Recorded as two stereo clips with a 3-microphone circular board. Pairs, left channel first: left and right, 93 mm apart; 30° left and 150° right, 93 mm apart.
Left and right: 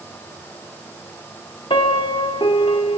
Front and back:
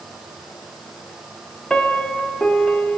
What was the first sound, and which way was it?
A piano, 110° left.